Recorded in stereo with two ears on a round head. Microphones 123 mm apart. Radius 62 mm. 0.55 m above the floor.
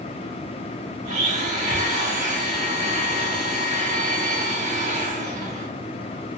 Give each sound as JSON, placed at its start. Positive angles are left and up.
{"t": 1.1, "sound": "a blender", "side_deg": -60, "distance_m": 1.3}